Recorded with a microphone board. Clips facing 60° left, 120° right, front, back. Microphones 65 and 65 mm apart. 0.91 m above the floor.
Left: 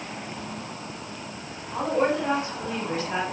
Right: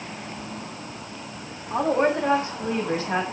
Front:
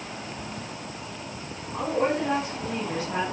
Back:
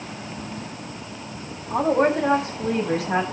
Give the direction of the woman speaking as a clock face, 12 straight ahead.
6 o'clock.